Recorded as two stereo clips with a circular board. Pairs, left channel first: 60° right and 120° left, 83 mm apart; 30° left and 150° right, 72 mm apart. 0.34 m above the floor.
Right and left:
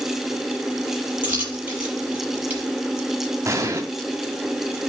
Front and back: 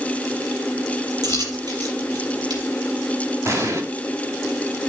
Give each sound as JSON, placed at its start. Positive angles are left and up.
{"t": 1.2, "sound": "a dropped coin", "azimuth_deg": -170, "distance_m": 4.5}
{"t": 3.5, "sound": "an explosion", "azimuth_deg": 170, "distance_m": 2.0}